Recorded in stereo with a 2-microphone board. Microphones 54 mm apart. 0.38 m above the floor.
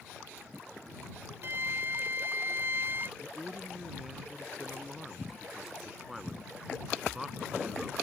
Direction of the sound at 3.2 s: 5° right (ahead or behind).